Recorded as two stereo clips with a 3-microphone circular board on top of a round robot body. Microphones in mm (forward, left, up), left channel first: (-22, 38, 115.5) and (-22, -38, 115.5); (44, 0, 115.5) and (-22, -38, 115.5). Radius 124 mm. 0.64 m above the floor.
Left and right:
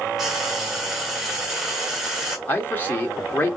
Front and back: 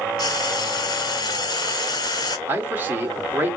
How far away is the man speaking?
About 1.7 m.